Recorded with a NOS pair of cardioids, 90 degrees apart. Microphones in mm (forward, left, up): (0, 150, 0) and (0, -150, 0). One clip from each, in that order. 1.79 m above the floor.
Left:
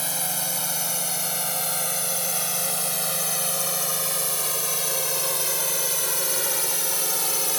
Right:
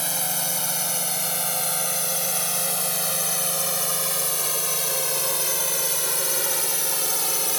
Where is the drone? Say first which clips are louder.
Right 1 dB; 30° right; by 7.6 s 10° right.